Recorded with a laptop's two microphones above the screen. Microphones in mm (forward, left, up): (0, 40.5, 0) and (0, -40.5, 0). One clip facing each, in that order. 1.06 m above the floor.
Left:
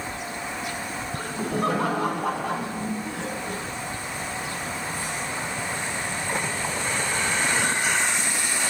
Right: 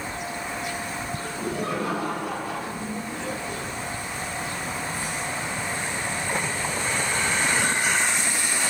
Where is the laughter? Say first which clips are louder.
Left 3 dB; 80° left, 8.5 m; by 3.6 s 90° left, 9 m.